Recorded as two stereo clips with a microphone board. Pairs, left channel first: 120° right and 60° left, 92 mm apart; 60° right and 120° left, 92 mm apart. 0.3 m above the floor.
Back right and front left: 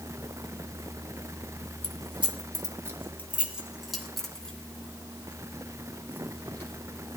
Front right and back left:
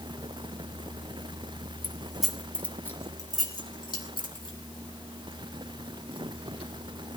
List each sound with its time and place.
1.8 s keys jangling: 50° left, 2.0 m; by 6.7 s 55° right, 6 m